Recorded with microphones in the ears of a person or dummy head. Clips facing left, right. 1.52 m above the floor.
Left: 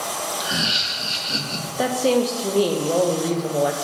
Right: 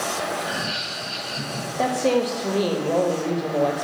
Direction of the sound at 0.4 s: 50° left (ahead or behind).